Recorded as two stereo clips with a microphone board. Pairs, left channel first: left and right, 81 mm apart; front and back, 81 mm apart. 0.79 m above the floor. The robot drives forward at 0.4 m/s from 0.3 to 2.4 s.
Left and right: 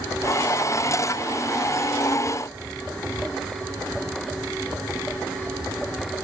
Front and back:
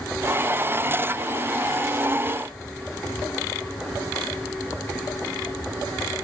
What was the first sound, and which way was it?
Only background noise.